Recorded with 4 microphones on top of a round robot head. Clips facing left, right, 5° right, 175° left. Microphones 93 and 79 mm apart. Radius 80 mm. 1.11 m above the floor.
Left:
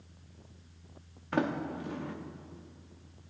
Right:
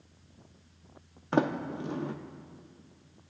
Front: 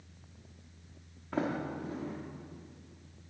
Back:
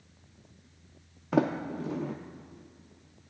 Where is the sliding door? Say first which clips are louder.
Right 3 dB, back 6 dB; 150° right, 0.7 m.